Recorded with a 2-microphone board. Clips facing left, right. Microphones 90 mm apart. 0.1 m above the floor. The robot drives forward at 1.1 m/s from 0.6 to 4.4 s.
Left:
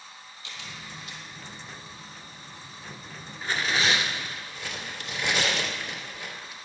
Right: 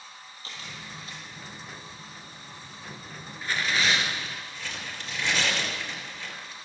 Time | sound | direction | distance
0.4 | a camera shutter | 40° right (ahead or behind) | 2 m
3.4 | tearing paper | 25° left (ahead or behind) | 1.7 m